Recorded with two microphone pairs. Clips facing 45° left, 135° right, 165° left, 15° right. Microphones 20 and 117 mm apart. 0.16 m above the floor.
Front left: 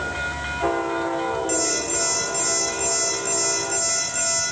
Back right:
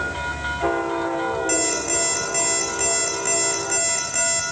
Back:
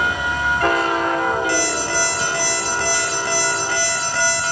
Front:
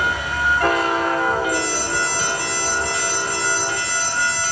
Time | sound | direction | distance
1.5 | an alarm clock | 170° left | 7.5 m